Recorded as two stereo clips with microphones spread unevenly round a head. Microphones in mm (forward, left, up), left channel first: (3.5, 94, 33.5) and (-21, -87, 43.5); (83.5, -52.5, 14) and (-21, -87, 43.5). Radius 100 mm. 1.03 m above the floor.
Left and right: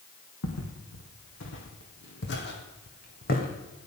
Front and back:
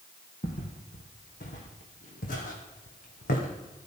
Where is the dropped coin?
I don't hear a dropped coin.